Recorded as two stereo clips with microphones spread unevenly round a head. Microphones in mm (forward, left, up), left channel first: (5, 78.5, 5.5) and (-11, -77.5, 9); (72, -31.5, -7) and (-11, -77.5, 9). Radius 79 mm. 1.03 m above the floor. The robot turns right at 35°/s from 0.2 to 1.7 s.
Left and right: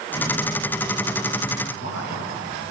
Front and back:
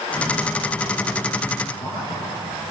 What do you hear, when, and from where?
1.7 s a man speaking: 100° left, 9 m